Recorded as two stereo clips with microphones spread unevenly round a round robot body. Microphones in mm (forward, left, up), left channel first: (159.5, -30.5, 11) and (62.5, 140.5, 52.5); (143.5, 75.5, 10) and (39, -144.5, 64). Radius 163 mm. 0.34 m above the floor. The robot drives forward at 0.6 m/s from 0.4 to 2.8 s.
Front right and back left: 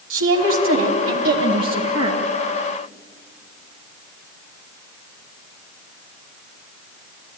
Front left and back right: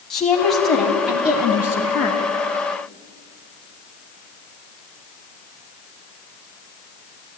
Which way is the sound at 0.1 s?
145° left.